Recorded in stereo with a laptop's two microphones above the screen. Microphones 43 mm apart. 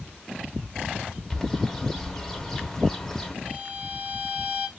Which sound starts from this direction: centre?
A bird, at 1.3 s.